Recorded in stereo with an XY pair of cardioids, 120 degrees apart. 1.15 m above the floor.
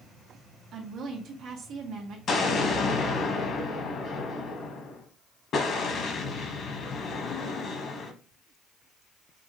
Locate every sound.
0.7 s a woman speaking: 65° right, 1.4 m
2.3 s an explosion: 50° left, 1.1 m